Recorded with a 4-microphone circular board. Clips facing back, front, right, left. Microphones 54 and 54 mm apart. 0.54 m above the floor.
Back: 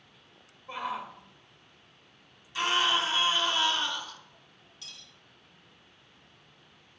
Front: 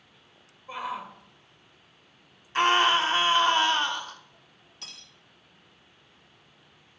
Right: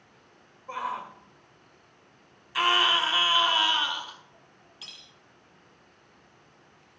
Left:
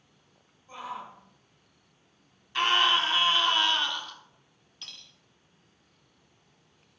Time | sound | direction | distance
0.7 | a shout | 90° right | 1.0 m
2.5 | a scream | 10° right | 1.1 m
4.8 | cutlery clinking | 5° right | 0.8 m